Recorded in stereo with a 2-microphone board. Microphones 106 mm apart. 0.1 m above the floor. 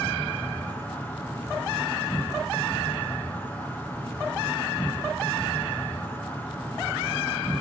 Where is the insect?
15° left (ahead or behind), 2.5 m.